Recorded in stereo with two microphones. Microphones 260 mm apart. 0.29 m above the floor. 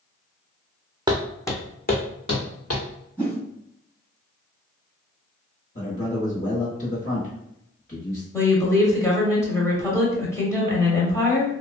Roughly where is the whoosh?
Centre.